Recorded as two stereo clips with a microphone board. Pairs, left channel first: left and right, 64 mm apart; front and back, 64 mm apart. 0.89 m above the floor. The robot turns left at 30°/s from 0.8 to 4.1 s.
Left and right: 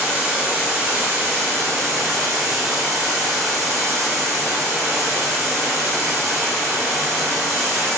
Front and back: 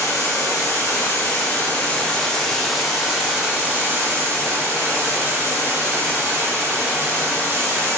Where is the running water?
30° right, 1.0 m; by 8.0 s 130° right, 1.0 m.